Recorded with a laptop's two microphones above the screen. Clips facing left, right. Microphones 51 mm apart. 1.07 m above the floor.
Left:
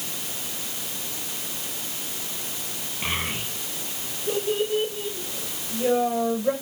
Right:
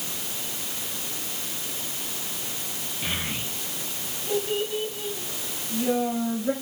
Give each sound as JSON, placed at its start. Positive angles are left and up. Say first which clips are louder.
{"t": 3.0, "sound": "a child speaking", "louder": "left 3 dB", "side_deg": 45, "distance_m": 4.0}